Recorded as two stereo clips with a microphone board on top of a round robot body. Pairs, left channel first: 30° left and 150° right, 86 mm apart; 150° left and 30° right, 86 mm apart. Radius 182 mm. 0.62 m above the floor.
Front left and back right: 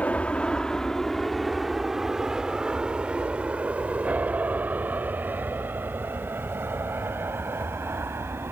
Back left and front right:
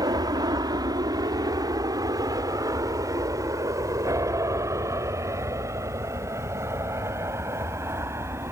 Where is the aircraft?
40° right; by 8.5 s 90° right.